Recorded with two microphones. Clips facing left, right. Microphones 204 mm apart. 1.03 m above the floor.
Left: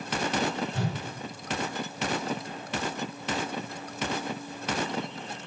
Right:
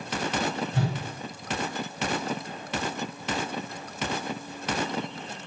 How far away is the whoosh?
About 1.7 m.